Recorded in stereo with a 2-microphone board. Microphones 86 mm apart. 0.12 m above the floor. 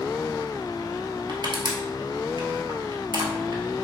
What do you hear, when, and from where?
1.3 s crushing: 60° right (ahead or behind), 1.1 m